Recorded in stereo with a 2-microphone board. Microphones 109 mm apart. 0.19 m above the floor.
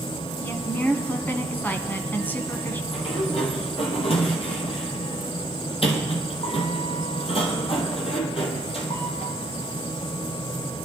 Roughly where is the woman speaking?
Centre.